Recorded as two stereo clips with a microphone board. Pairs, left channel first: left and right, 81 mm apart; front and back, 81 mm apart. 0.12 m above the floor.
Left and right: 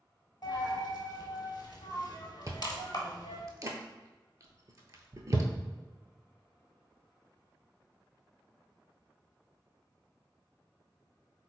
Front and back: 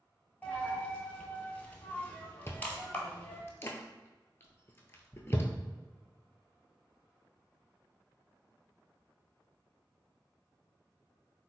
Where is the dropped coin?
65° left, 1.0 m.